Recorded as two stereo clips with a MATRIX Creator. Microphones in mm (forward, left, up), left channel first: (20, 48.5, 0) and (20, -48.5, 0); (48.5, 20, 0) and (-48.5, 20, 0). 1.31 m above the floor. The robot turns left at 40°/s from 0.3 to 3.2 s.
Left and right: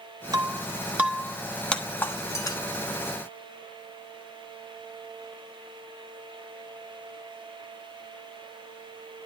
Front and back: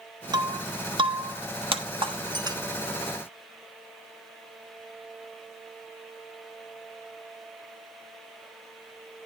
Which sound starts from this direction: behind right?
Breaking glass, at 0.3 s.